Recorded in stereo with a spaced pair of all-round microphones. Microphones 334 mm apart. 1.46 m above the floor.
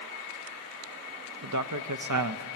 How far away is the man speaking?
About 0.7 m.